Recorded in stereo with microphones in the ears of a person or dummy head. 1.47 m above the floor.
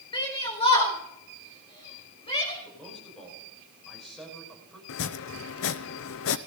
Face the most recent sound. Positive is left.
turn(degrees=65)  # may be behind; listen again after turning